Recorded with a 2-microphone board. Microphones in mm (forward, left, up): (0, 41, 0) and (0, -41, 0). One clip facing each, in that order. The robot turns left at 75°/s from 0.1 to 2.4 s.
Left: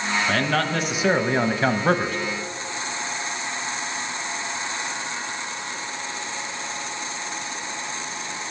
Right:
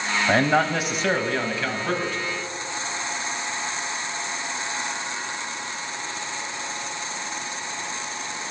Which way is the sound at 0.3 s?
140° right.